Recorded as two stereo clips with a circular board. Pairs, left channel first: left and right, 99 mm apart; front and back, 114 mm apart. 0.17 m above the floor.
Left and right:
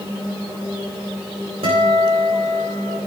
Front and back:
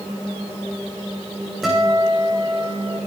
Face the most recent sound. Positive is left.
turn(degrees=-90)